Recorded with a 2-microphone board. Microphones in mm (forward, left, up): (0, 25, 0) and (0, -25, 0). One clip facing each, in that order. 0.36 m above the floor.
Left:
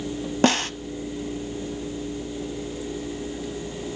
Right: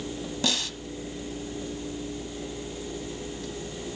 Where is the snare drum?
45° left (ahead or behind), 1.0 m.